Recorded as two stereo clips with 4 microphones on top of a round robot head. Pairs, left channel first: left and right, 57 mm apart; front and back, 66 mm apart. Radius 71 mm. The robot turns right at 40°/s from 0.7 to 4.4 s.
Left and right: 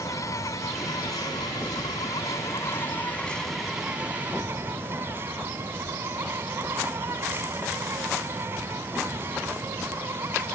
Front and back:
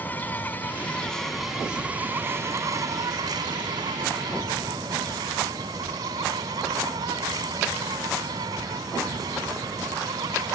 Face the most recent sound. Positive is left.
turn(degrees=-150)